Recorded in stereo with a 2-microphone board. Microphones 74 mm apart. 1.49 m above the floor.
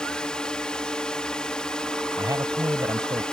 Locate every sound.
0.0 s a drone: 10° left (ahead or behind)
2.2 s a man speaking: 55° right (ahead or behind)